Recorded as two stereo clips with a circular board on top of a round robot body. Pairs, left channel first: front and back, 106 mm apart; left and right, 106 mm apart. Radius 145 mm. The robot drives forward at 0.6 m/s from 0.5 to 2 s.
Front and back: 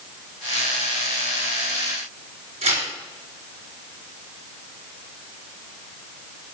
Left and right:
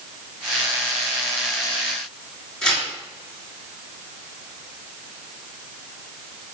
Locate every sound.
2.6 s tearing paper: 170° left, 4 m